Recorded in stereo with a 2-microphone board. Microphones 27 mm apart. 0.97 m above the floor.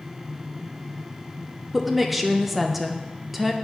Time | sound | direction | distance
1.7 | a woman speaking | 5° right (ahead or behind) | 0.6 m